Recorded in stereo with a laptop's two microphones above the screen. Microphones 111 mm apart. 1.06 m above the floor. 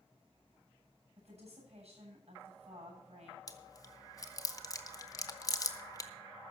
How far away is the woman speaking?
About 8 m.